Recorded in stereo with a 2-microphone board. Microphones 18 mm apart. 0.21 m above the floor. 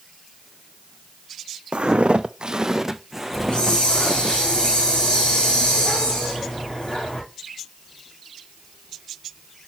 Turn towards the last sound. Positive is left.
turn(degrees=65)  # may be behind; listen again after turning